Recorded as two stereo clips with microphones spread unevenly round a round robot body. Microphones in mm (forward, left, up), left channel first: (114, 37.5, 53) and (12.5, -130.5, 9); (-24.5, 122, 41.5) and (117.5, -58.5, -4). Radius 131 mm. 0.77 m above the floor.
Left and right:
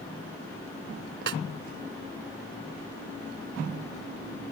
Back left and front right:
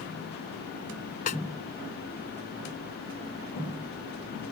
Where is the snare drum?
170° right.